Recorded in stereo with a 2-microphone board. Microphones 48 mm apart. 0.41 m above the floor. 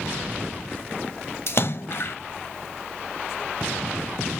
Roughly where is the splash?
Left.